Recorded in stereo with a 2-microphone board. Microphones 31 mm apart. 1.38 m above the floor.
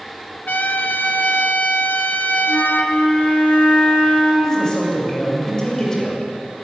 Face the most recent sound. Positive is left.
turn(degrees=20)  # may be behind; listen again after turning